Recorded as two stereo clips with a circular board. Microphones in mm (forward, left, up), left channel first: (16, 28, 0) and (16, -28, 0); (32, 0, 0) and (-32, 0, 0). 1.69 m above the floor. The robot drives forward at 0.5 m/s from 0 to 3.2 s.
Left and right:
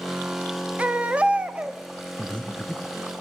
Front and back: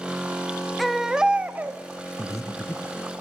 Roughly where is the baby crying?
Right.